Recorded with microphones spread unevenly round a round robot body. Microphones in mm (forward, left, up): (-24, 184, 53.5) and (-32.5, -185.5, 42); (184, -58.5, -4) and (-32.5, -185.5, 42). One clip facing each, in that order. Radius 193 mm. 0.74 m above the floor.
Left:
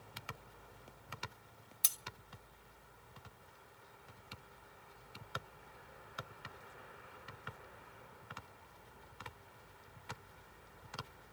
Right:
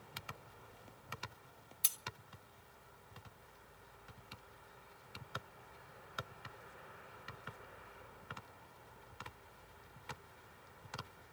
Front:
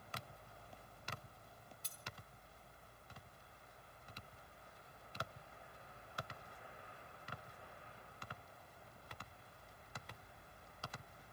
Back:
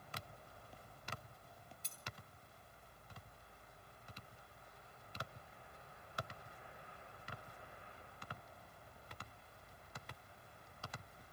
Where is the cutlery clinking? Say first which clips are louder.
Left 1 dB, back 1 dB; 135° left, 0.7 m.